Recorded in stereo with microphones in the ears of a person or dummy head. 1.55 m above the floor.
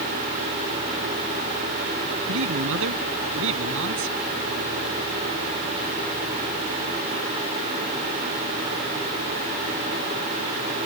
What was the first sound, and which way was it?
A man speaking, 75° right (ahead or behind).